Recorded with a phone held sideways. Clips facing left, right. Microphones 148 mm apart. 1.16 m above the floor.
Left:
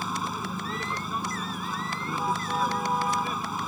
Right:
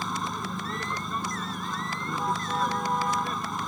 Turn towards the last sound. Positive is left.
turn(degrees=5)  # may be behind; listen again after turning